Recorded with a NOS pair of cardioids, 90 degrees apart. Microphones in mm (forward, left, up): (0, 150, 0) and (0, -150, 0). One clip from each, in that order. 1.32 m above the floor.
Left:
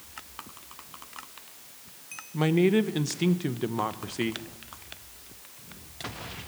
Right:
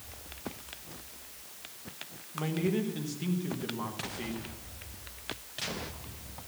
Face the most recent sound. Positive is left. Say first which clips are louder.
# left 9 dB
turn(degrees=65)